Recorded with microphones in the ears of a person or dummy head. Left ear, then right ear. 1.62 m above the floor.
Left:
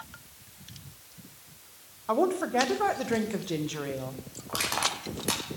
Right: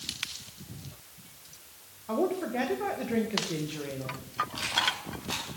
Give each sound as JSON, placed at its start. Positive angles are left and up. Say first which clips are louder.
{"t": 2.1, "sound": "a woman speaking", "louder": "left 4 dB", "side_deg": 40, "distance_m": 2.0}
{"t": 4.5, "sound": "crushing", "louder": "left 1 dB", "side_deg": 60, "distance_m": 5.0}